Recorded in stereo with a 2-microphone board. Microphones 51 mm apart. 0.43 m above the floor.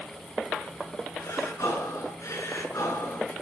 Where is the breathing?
75° left (ahead or behind), 6.5 m.